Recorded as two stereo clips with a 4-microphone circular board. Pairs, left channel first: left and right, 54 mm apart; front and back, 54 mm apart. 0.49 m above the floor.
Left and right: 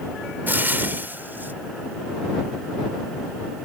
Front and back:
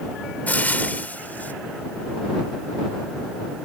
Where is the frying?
50° right.